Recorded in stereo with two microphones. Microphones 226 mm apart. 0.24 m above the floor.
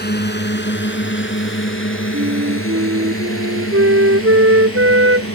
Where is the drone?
45° left (ahead or behind); by 5.4 s 75° left (ahead or behind).